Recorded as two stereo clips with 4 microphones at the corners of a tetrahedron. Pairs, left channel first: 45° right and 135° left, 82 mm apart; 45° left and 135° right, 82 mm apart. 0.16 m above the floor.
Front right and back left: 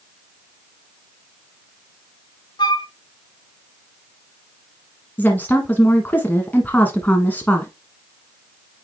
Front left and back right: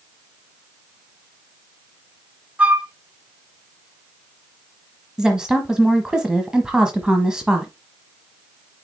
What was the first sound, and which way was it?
A flute, 65° right.